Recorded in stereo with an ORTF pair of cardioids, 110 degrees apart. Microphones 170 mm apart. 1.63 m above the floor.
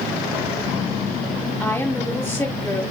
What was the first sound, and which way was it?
A woman speaking, 10° left.